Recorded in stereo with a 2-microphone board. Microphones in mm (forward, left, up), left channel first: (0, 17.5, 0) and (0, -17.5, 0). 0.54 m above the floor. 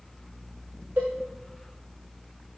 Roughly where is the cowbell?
Right.